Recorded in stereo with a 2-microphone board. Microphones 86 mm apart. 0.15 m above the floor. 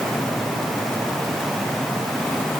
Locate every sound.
Only background noise.